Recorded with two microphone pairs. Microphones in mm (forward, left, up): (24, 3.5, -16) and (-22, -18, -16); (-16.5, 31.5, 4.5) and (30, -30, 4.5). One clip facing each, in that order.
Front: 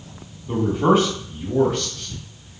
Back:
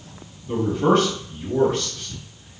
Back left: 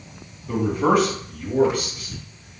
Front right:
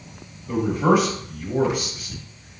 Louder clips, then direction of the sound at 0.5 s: Front 1 dB, even; 35° left.